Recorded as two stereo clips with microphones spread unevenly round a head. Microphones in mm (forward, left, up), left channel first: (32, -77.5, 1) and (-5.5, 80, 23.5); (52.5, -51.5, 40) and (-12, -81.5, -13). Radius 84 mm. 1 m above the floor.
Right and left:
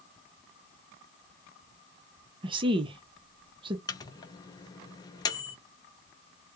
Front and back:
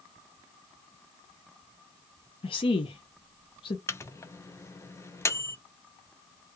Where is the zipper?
I don't hear a zipper.